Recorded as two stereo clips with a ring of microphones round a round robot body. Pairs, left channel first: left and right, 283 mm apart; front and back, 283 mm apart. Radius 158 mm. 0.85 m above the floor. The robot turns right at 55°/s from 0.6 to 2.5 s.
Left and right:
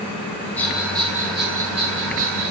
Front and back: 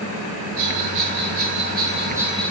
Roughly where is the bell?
Behind.